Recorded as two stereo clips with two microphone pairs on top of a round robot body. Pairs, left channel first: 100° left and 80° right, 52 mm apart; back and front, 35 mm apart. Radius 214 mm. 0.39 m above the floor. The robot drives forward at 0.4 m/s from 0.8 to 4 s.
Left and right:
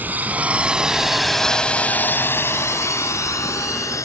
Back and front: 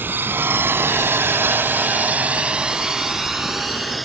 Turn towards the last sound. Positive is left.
turn(degrees=90)